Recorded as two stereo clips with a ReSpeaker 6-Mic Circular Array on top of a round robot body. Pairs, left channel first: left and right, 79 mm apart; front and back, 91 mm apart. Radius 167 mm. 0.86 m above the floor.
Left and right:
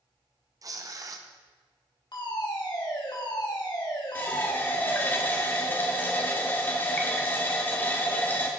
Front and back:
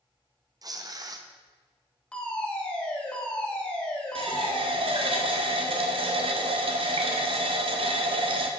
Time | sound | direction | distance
0.6 | tearing paper | 135° right | 1.0 m
2.1 | a fire alarm | 80° left | 3.5 m
4.2 | a running tap | 160° left | 1.2 m